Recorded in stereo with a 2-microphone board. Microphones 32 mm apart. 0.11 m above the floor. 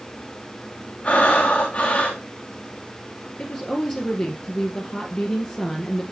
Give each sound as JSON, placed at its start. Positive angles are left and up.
{"t": 1.0, "sound": "breathing", "side_deg": 45, "distance_m": 3.5}
{"t": 3.4, "sound": "a woman speaking", "side_deg": 30, "distance_m": 2.0}